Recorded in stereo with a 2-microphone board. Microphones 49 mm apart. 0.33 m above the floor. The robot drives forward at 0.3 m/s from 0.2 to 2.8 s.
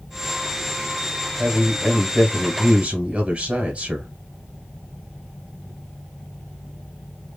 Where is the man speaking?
25° right (ahead or behind), 1.3 m; by 4.1 s 30° right (ahead or behind), 1.1 m.